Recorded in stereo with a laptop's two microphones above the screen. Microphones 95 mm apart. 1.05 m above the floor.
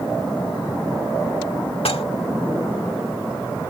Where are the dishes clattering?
85° left.